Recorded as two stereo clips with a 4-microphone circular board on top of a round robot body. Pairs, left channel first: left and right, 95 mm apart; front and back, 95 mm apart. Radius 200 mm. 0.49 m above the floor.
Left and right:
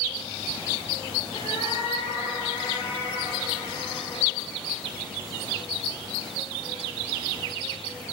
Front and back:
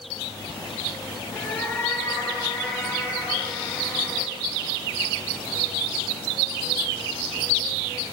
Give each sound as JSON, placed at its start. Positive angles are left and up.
{"t": 1.3, "sound": "a cat meowing", "azimuth_deg": 70, "distance_m": 6.5}